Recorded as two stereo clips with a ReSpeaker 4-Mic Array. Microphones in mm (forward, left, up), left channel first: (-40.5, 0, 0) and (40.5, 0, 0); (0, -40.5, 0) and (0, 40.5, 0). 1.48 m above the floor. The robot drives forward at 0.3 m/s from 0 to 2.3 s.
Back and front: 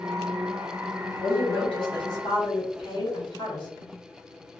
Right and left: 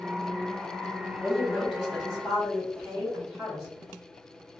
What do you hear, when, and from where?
1.2 s a woman speaking: straight behind, 1.3 m